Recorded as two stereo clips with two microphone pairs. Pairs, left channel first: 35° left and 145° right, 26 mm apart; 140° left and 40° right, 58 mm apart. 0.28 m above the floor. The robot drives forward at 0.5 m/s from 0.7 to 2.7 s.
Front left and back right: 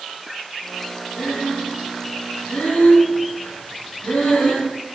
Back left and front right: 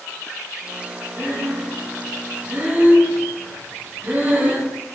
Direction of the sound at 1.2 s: 10° left.